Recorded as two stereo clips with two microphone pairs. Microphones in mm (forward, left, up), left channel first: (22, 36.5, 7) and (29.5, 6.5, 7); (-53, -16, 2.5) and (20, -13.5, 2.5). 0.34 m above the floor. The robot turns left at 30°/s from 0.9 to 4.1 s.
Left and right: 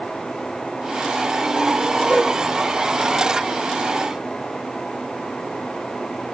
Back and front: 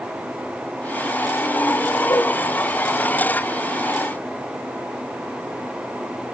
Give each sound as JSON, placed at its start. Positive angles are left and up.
{"t": 2.1, "sound": "a whoosh", "azimuth_deg": 140, "distance_m": 4.5}